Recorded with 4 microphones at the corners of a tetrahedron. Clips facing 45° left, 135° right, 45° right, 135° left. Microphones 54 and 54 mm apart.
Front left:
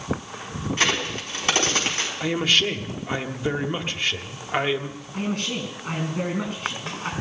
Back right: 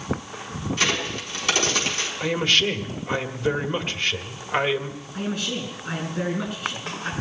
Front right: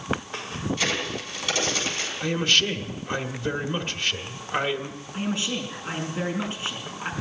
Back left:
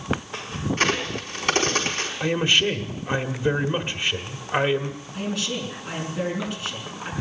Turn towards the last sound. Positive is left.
turn(degrees=20)